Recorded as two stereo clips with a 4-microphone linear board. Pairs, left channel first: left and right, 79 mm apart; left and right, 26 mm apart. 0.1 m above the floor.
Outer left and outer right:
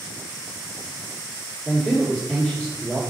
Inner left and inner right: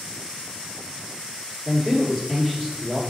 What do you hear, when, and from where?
1.6 s a man speaking: 15° left (ahead or behind), 1.7 m